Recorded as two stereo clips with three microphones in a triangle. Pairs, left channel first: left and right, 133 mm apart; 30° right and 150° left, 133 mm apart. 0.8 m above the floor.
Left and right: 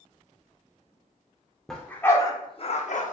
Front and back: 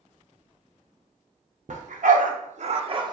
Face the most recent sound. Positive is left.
turn(degrees=95)